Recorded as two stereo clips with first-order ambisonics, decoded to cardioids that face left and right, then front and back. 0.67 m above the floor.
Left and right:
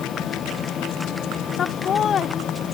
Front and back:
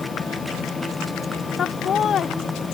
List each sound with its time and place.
1.6 s laughter: 40° left